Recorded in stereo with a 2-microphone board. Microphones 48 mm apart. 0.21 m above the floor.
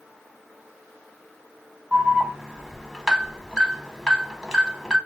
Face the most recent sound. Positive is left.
turn(degrees=-10)  # may be behind; listen again after turning